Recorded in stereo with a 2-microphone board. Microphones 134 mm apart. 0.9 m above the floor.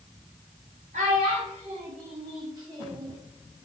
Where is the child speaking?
70° right (ahead or behind), 1.2 m; by 3.1 s 20° right (ahead or behind), 1.4 m.